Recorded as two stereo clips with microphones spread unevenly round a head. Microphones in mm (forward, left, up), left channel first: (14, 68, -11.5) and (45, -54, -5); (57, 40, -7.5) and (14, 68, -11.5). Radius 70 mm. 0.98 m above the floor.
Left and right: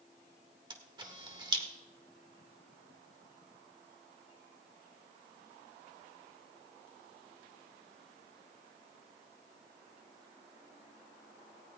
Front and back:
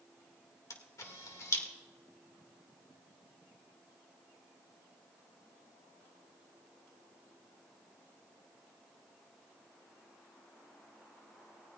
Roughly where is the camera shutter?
Ahead.